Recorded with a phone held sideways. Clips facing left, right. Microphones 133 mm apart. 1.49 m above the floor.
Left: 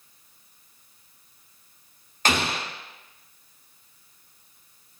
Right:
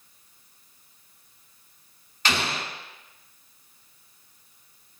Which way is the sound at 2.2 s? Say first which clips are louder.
Left 3 dB; 45° left (ahead or behind).